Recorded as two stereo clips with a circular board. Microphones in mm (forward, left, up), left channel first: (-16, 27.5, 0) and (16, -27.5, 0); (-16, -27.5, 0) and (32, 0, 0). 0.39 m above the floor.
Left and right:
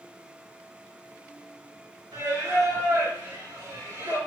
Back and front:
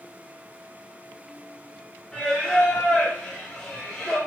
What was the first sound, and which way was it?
Singing, 70° right.